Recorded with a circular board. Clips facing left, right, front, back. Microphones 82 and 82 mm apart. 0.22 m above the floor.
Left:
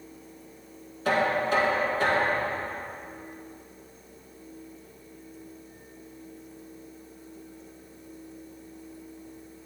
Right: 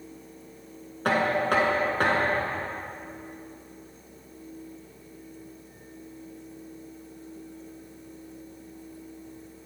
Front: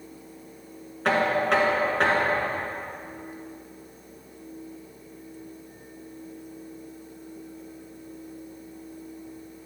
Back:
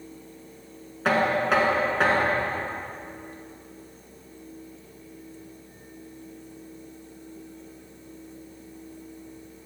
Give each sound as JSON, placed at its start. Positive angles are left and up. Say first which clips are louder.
{"t": 1.1, "sound": "knocking", "louder": "right 1 dB, even", "azimuth_deg": -90, "distance_m": 1.4}